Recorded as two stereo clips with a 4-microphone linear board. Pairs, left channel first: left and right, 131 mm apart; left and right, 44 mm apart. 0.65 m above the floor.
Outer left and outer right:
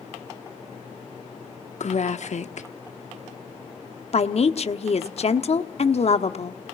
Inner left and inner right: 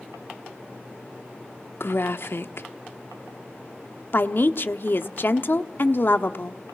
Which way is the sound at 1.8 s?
60° left (ahead or behind).